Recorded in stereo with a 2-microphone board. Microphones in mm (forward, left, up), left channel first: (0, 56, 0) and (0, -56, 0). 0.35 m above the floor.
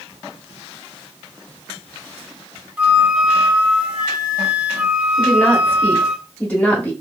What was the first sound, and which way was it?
A flute, 10° right (ahead or behind).